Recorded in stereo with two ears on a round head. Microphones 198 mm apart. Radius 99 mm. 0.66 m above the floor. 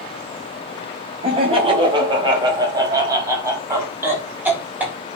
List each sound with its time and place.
1.2 s laughter: 25° right (ahead or behind), 4 m; by 5.0 s 5° right (ahead or behind), 5.5 m